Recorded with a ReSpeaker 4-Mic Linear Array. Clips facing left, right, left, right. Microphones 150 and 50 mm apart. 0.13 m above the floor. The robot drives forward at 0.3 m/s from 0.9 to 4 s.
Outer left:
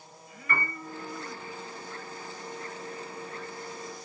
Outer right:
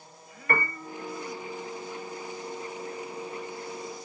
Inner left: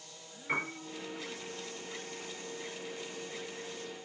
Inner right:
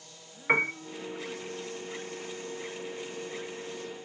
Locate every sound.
0.5 s a piano: 50° right (ahead or behind), 1.0 m